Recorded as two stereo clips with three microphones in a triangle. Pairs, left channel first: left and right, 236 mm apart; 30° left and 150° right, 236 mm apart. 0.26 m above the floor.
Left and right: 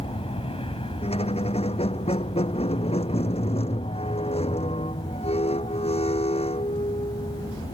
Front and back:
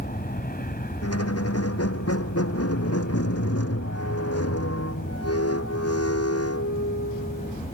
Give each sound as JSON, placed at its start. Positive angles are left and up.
{"t": 0.0, "sound": "an aircraft", "azimuth_deg": 40}
{"t": 1.0, "sound": "a squeak", "azimuth_deg": 25}